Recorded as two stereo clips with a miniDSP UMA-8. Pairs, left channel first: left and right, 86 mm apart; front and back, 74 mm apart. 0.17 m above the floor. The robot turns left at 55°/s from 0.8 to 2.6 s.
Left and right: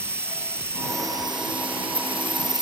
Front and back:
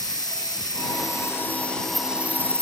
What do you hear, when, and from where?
0.0 s an insect: 30° right; by 2.6 s 125° right